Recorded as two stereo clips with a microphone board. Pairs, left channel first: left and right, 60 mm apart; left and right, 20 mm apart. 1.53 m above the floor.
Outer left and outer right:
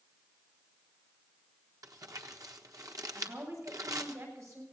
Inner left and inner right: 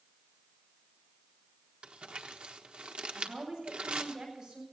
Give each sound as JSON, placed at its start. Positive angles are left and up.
{"t": 1.8, "sound": "crumpling", "side_deg": -75, "distance_m": 1.2}
{"t": 3.1, "sound": "a woman speaking", "side_deg": -55, "distance_m": 8.5}